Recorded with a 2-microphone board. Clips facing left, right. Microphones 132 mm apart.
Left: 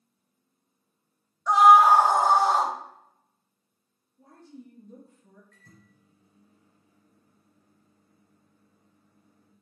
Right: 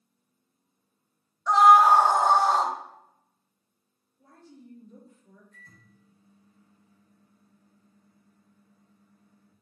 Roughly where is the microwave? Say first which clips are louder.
Even; left.